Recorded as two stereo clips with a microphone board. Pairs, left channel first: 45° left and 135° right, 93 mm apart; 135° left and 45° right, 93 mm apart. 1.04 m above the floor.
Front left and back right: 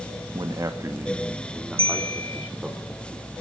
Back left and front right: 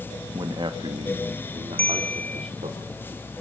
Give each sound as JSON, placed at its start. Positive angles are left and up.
{"t": 0.3, "sound": "a man speaking", "azimuth_deg": -90, "distance_m": 1.3}
{"t": 1.8, "sound": "a bell", "azimuth_deg": -150, "distance_m": 1.0}